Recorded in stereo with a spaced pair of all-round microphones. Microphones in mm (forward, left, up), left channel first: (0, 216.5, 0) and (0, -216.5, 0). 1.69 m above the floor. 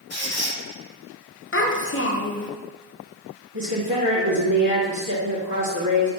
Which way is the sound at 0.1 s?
55° left (ahead or behind).